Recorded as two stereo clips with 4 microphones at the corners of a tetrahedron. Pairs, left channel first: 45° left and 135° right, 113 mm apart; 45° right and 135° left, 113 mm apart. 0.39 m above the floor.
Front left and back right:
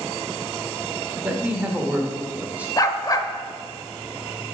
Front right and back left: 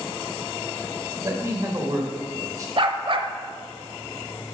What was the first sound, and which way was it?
A man speaking, 160° left.